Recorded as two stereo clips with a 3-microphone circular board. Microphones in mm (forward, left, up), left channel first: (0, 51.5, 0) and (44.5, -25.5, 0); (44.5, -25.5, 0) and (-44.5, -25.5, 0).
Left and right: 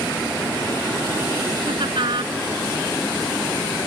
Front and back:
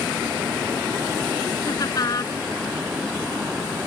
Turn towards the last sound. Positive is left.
turn(degrees=-45)